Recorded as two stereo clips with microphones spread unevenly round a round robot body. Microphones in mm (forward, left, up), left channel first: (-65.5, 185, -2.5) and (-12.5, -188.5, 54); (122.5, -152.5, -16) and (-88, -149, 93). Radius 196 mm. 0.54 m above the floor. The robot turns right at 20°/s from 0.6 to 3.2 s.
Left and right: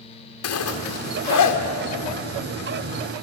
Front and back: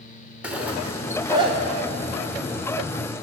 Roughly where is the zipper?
Left.